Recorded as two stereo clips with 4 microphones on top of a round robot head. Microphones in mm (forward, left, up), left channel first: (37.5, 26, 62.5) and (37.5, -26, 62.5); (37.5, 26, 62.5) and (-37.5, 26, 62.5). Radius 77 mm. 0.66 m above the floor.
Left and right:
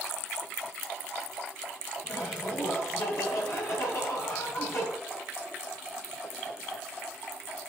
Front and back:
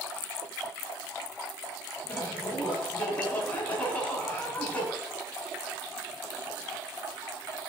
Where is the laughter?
70° left, 6 m.